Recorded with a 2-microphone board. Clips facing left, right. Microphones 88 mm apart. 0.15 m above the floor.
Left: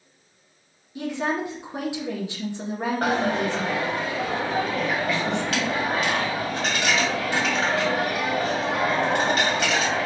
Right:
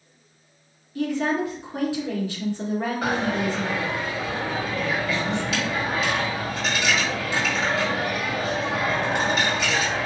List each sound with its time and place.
0.9 s a woman speaking: 20° left (ahead or behind), 1.6 m
3.0 s a dropped coin: 60° left (ahead or behind), 2.0 m